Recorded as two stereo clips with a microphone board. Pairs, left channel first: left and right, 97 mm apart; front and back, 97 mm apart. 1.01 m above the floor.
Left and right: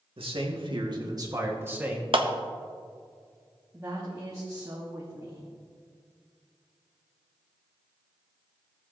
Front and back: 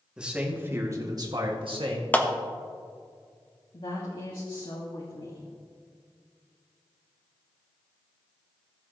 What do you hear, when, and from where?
0.2 s a man speaking: 100° right, 2 m; by 2.0 s 165° right, 2.0 m
2.1 s a clap: 70° right, 0.9 m
3.7 s a woman speaking: 30° right, 1.6 m